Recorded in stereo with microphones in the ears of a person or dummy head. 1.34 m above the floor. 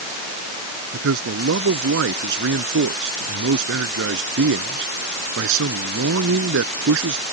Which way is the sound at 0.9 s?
65° right (ahead or behind).